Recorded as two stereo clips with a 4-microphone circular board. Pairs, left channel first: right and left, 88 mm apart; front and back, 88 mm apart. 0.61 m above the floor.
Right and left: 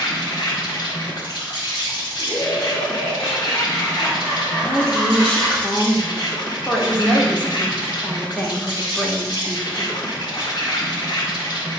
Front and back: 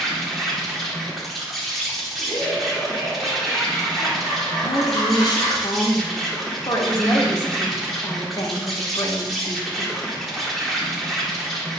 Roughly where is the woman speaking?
Ahead.